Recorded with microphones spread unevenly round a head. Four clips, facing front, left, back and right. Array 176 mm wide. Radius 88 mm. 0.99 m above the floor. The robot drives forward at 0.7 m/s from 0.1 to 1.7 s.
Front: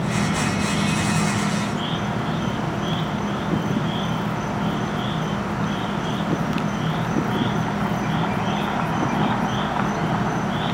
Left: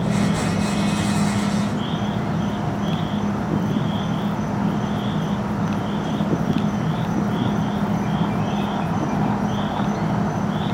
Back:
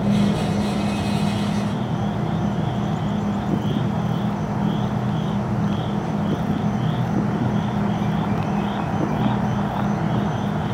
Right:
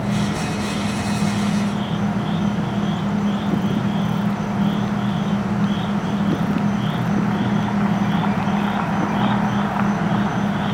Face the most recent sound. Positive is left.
turn(degrees=180)